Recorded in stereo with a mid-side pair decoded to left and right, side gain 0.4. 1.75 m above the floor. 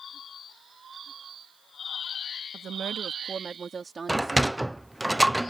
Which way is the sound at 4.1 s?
10° right.